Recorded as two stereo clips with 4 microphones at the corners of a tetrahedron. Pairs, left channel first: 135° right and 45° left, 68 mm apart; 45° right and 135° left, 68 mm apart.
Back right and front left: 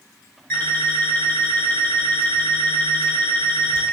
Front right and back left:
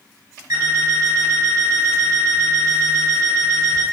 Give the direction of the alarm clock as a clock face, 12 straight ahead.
7 o'clock.